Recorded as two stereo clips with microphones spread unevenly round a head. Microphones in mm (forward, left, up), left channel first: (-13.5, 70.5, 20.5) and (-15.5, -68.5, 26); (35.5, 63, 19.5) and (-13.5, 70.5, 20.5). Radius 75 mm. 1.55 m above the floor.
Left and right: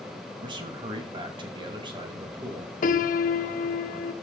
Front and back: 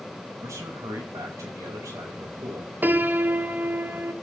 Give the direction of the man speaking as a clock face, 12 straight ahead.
5 o'clock.